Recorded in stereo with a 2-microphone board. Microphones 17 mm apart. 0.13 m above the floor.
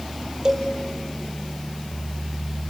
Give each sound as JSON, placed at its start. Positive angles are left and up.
{"t": 0.5, "sound": "a cowbell", "side_deg": -45, "distance_m": 3.0}